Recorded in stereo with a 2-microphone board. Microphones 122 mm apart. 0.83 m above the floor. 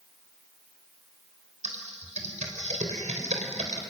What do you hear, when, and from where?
1.6 s typing on a keyboard: 75° right (ahead or behind), 3.5 m